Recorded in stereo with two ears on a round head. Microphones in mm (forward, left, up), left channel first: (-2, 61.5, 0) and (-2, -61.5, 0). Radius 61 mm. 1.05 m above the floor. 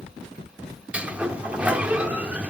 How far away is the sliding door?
About 0.9 m.